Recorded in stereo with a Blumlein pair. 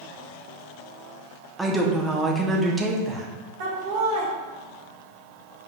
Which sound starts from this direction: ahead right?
Laughter, at 3.6 s.